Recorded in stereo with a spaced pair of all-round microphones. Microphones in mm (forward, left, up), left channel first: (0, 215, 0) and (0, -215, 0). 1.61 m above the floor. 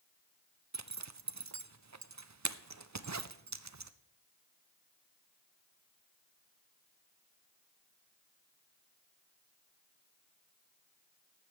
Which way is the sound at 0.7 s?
40° right (ahead or behind).